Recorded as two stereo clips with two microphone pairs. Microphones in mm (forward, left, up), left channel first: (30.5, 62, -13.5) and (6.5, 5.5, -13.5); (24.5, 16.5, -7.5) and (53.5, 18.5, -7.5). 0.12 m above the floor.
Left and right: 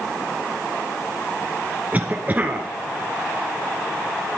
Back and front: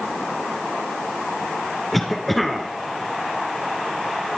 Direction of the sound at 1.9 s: 90° right.